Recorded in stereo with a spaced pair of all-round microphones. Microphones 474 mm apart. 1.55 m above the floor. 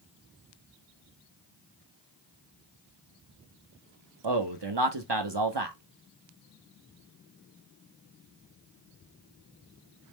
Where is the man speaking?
65° right (ahead or behind), 1.0 m.